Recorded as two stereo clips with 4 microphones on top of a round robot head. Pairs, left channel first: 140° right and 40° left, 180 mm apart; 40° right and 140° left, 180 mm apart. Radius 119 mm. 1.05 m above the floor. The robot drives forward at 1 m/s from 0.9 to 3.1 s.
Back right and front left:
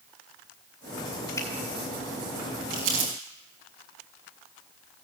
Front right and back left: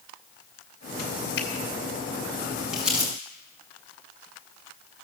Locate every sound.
1.4 s a finger snap: 70° right, 2 m
2.7 s crumpling: 55° left, 5 m; by 3.1 s 60° left, 5 m